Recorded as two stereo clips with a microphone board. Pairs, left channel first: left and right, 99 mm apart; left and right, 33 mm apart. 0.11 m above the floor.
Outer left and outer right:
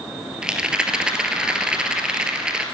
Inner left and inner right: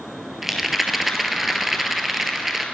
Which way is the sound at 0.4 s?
10° right (ahead or behind).